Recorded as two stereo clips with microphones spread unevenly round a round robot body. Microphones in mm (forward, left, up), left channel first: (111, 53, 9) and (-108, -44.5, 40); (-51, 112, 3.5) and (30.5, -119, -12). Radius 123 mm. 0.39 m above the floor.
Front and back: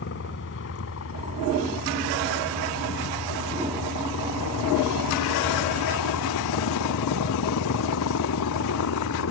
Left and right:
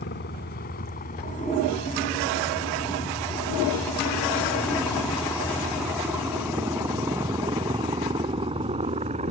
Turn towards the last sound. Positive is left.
turn(degrees=-5)